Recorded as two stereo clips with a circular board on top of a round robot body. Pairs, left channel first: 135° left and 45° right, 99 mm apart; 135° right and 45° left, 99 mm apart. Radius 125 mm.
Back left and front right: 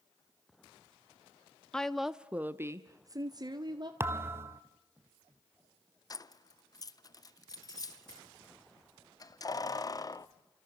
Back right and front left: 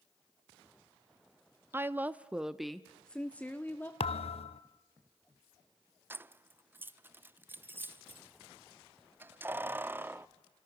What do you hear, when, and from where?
1.7 s a woman speaking: 65° left, 0.9 m; by 3.9 s 70° right, 1.4 m
4.0 s a thud: 110° right, 0.7 m
6.1 s keys jangling: 105° left, 0.7 m